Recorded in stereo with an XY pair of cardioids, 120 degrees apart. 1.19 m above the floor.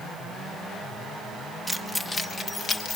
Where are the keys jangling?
Straight ahead, 0.9 m; by 3.0 s 50° left, 1.4 m.